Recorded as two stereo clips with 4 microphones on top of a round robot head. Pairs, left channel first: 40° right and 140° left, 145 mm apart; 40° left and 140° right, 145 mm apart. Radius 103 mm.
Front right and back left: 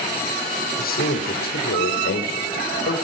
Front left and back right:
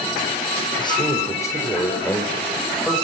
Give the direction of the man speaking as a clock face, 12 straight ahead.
1 o'clock.